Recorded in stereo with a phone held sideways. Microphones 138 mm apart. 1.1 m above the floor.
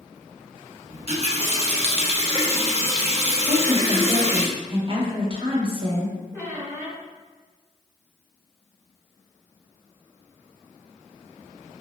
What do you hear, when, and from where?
0.9 s a running tap: 45° right (ahead or behind), 0.8 m
3.4 s a woman speaking: 40° right (ahead or behind), 0.8 m
6.3 s a squeak: 20° right (ahead or behind), 1.4 m